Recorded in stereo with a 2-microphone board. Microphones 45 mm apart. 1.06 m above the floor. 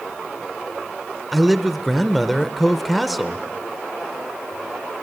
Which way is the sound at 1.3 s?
Centre (ahead or behind).